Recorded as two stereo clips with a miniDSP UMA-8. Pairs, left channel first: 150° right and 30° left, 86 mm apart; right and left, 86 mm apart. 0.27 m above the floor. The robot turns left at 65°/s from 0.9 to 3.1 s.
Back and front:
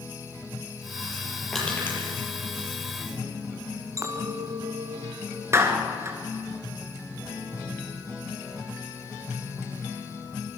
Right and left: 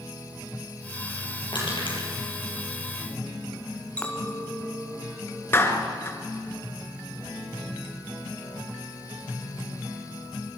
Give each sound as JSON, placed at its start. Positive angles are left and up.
{"t": 1.5, "sound": "crushing", "azimuth_deg": -65, "distance_m": 7.0}
{"t": 4.0, "sound": "a clink", "azimuth_deg": -20, "distance_m": 2.0}
{"t": 5.5, "sound": "a clap", "azimuth_deg": -30, "distance_m": 2.5}